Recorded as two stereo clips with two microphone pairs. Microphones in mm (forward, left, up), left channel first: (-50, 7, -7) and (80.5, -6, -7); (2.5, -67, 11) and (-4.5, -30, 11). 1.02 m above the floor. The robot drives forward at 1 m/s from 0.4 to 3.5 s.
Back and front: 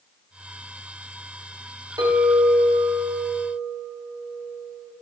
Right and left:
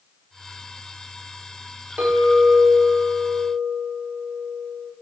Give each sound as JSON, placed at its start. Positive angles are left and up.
{"t": 2.0, "sound": "a clink", "azimuth_deg": 55, "distance_m": 3.0}